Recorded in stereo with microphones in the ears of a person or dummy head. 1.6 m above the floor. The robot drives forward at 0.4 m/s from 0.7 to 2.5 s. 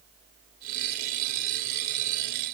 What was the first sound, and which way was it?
Only background noise.